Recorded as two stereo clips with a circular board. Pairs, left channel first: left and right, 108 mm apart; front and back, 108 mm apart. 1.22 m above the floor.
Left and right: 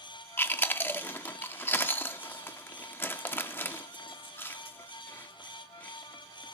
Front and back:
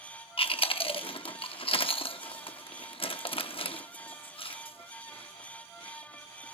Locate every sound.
0.4 s chewing: 20° left, 0.8 m